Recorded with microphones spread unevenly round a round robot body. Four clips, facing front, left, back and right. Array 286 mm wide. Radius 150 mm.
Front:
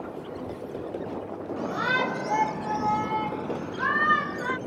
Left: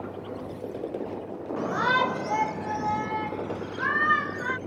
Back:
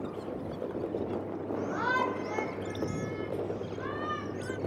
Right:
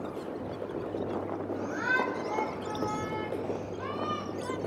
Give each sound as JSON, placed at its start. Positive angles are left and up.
{"t": 1.6, "sound": "a shout", "azimuth_deg": 80}